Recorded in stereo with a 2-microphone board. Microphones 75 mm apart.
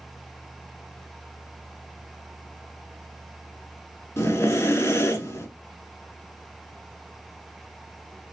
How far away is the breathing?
About 0.9 m.